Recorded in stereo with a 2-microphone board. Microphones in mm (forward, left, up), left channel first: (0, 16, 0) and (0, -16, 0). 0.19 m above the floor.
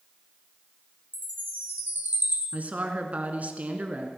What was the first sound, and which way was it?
A chime, 75° right (ahead or behind).